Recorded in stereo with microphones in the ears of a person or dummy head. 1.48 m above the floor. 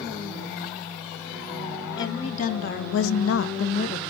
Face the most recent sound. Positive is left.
turn(degrees=50)  # may be behind; listen again after turning